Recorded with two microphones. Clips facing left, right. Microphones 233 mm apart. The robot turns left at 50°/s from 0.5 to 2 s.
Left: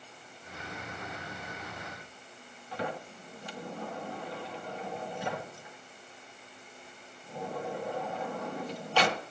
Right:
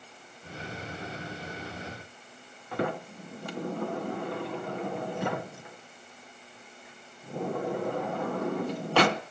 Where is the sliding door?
60° right (ahead or behind), 0.6 m.